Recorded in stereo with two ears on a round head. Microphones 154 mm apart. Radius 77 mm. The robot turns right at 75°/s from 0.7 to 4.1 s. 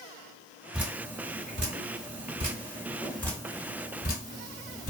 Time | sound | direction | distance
0.7 | dripping | 5° right (ahead or behind) | 1.4 m